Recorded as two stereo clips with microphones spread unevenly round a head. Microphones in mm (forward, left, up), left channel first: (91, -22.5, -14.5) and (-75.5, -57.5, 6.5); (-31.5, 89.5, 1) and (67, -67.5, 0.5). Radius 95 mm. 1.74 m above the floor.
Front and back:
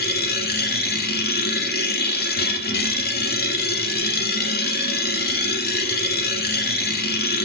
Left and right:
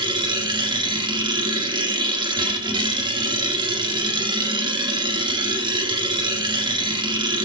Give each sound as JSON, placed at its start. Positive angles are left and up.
{"t": 0.0, "sound": "a machine running", "azimuth_deg": 0, "distance_m": 1.7}